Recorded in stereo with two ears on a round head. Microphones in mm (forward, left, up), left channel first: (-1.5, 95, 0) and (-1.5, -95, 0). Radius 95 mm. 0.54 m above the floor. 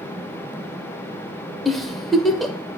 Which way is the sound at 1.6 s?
Centre (ahead or behind).